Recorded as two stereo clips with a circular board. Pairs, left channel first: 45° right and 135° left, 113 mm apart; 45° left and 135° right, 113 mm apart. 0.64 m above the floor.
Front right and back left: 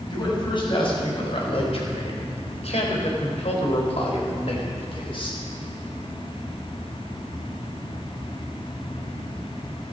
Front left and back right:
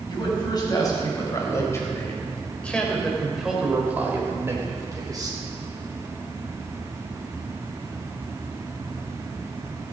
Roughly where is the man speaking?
Ahead.